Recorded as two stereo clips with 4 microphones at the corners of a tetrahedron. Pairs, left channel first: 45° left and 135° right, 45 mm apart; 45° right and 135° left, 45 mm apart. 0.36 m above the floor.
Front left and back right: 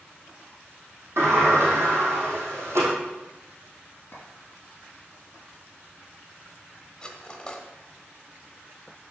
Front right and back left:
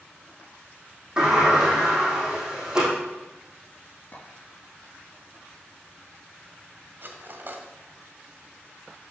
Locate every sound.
1.2 s a sliding door: 150° right, 3.5 m
4.1 s a clink: 5° left, 3 m
7.0 s cutlery clinking: 115° left, 1.1 m